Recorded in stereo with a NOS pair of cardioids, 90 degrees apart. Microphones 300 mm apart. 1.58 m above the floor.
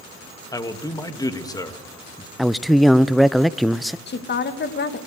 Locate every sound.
0.5 s a man speaking: 15° left, 2 m
2.4 s a man speaking: straight ahead, 0.7 m
4.1 s a woman speaking: 40° left, 2 m